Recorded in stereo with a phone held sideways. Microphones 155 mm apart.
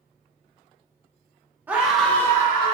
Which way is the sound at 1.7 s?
10° right (ahead or behind).